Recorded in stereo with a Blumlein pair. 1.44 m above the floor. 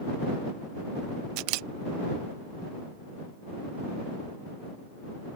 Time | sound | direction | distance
1.4 | a camera shutter | 45° right | ?